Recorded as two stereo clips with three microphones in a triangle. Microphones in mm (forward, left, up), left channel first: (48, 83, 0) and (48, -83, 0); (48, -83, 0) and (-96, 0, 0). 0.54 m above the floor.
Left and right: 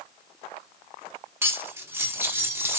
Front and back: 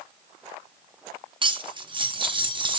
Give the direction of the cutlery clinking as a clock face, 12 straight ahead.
5 o'clock.